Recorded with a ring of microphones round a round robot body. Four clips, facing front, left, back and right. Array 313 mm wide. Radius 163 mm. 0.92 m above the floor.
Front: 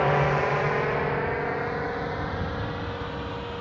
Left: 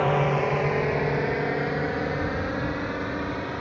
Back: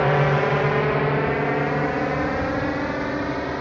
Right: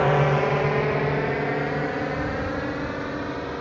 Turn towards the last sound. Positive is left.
turn(degrees=180)